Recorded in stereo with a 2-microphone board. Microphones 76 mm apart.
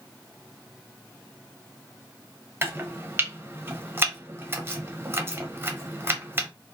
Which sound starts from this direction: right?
Chopping, at 2.6 s.